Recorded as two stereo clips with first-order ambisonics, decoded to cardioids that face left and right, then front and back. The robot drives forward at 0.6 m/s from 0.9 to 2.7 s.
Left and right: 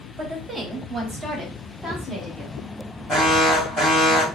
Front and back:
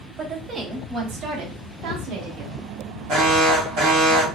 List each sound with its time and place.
0.2 s a woman speaking: 135° right, 0.8 m; by 2.6 s 170° right, 1.5 m
3.1 s an alarm: 175° left, 2 m